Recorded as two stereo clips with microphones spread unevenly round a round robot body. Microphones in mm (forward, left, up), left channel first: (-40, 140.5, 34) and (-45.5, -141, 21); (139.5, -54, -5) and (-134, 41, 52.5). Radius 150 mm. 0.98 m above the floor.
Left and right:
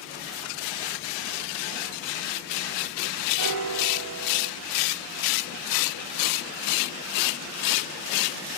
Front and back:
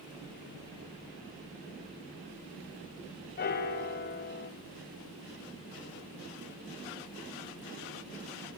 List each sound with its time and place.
3.4 s a piano: 80° right, 1.1 m